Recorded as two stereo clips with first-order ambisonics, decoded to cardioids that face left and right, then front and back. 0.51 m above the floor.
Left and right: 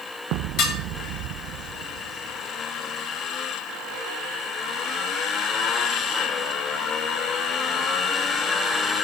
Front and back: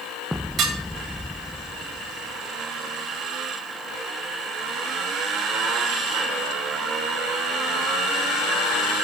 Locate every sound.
0.6 s dishes clattering: 120° left, 1.7 m